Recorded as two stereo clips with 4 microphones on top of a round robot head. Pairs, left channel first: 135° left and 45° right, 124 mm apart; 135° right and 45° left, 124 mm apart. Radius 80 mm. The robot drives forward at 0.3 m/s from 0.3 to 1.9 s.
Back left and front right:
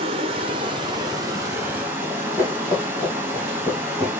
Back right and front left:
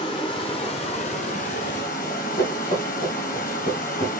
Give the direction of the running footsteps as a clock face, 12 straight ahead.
4 o'clock.